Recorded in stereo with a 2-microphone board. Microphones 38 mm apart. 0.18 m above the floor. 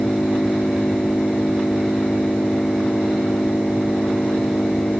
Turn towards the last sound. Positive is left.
turn(degrees=40)  # may be behind; listen again after turning